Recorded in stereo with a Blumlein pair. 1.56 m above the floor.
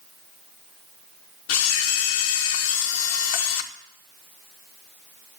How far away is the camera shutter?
About 1.1 m.